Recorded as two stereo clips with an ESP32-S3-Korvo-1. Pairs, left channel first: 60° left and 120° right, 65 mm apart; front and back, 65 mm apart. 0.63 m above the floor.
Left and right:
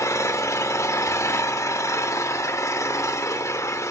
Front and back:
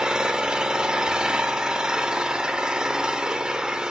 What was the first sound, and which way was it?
An engine running, 105° left.